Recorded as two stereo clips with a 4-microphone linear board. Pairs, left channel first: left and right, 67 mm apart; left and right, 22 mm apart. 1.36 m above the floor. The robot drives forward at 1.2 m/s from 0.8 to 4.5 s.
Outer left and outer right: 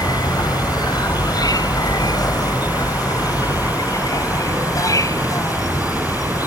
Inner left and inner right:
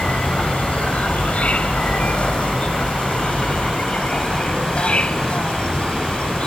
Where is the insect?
85° left; by 6.5 s 60° left (ahead or behind).